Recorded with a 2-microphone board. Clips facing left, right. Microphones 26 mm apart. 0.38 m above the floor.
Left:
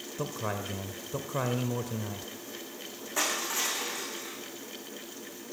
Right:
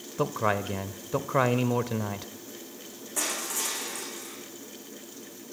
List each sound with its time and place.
0.2 s a man speaking: 40° right (ahead or behind), 1.0 m
3.2 s crushing: 25° left (ahead or behind), 8 m